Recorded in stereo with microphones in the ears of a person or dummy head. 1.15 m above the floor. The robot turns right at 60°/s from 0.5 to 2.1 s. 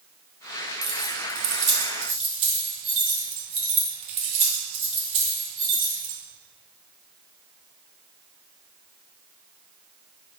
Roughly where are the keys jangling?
Right.